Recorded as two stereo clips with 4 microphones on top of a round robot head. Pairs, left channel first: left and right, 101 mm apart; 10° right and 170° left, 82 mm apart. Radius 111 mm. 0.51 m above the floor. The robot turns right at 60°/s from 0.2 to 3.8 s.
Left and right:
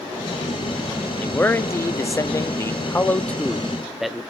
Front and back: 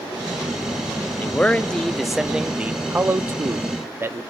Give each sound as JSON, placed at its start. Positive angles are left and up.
{"t": 1.2, "sound": "a man speaking", "azimuth_deg": 25, "distance_m": 0.7}